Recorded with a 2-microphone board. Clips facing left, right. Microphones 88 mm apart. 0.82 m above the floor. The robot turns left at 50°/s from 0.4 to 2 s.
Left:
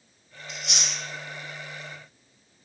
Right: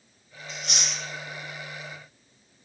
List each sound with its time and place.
0.5 s chewing: 35° right (ahead or behind), 1.9 m; by 1.0 s 60° right (ahead or behind), 1.9 m